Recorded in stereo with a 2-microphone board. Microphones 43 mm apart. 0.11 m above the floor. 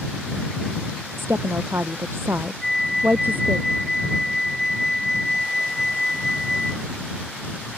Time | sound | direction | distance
1.2 | a woman speaking | 70° right (ahead or behind) | ?
2.6 | a flute | 5° left (ahead or behind) | ?